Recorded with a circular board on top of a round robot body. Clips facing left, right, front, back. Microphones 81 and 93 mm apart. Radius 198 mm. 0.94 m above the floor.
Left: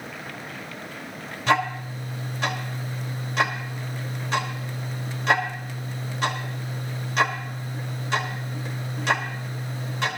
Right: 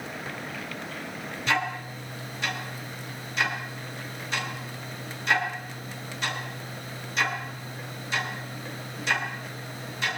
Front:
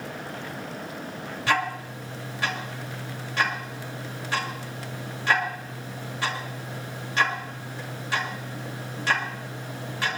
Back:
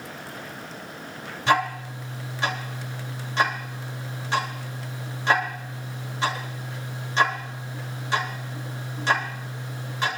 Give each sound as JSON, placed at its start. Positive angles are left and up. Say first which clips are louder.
{"t": 1.5, "sound": "ticking", "louder": "left 5 dB, back 4 dB", "azimuth_deg": 115, "distance_m": 2.5}